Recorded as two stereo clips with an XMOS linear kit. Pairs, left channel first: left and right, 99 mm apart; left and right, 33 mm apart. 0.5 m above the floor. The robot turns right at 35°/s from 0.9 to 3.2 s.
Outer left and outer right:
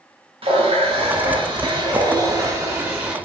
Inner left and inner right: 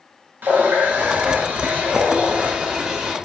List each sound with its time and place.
0.4 s a running tap: 90° right, 1.0 m; by 3.1 s 10° right, 1.0 m